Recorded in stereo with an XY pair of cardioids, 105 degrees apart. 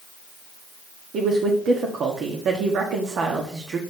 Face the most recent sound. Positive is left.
turn(degrees=-60)